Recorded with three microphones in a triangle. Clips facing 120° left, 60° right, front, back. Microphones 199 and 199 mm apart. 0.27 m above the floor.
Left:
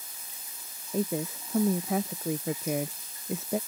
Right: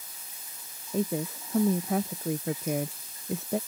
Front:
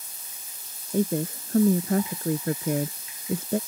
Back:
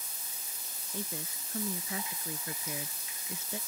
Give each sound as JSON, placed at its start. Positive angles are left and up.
{"t": 0.9, "sound": "a woman speaking", "azimuth_deg": 30}